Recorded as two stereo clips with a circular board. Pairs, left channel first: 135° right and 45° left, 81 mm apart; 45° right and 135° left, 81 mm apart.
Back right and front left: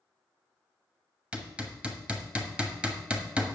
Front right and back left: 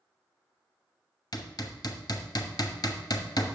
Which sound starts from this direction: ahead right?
Hammering, at 1.3 s.